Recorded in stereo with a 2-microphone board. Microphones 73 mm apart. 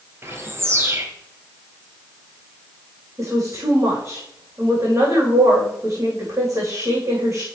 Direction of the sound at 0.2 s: 35° right (ahead or behind).